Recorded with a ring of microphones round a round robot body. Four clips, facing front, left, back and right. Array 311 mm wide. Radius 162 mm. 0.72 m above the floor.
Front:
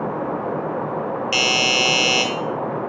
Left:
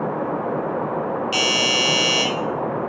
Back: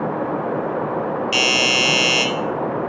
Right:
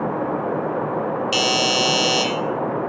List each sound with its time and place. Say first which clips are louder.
1.3 s a doorbell: right 2 dB, back 1 dB; 55° right, 1.5 m